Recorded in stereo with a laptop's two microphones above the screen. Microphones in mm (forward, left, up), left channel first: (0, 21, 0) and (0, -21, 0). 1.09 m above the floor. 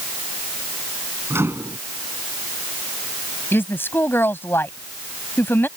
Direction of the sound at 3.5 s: 65° left (ahead or behind).